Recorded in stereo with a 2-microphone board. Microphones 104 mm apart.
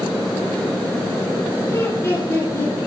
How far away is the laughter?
About 7 m.